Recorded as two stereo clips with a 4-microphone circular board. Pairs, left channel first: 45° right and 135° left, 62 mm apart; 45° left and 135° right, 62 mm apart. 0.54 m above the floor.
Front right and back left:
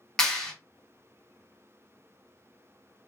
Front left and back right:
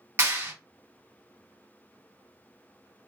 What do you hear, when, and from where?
0.2 s a clap: 120° right, 1.0 m